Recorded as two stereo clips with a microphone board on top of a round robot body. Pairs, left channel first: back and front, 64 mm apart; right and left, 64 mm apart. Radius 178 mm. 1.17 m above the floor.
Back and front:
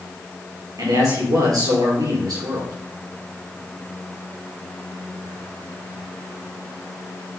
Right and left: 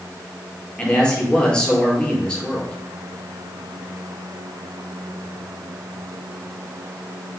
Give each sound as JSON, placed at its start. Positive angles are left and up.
{"t": 0.8, "sound": "a man speaking", "azimuth_deg": -15, "distance_m": 5.0}